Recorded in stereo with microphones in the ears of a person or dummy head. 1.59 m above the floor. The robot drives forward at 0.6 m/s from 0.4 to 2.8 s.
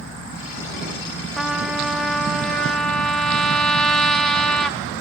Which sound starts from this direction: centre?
A trumpet, at 1.4 s.